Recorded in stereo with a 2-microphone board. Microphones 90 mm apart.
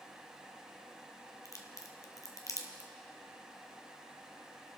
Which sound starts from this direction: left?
A crack, at 1.4 s.